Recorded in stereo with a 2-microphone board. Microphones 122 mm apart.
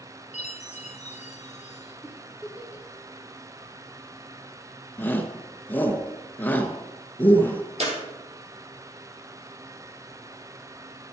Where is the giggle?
10° right (ahead or behind), 2.5 m.